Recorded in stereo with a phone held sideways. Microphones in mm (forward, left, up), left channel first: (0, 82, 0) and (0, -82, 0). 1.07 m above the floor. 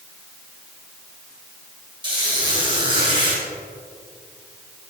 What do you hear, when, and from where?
2.0 s a squeak: 30° right (ahead or behind), 3 m